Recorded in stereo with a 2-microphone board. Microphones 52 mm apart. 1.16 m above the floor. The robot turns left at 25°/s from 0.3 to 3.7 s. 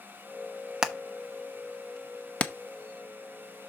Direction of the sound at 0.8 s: 10° right (ahead or behind).